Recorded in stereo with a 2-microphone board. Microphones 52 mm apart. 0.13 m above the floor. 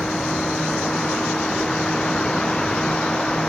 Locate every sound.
0.0 s a vehicle: 15° left (ahead or behind)